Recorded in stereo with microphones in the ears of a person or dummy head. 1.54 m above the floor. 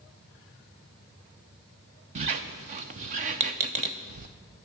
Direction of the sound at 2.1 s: 40° right (ahead or behind).